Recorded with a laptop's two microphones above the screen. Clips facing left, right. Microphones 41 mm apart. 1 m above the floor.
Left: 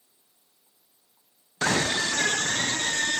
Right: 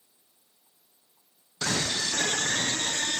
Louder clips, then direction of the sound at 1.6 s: Left 5 dB; 40° left (ahead or behind).